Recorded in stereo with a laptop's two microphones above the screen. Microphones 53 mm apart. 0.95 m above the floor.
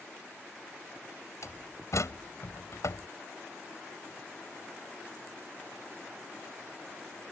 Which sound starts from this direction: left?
A door slam, at 1.4 s.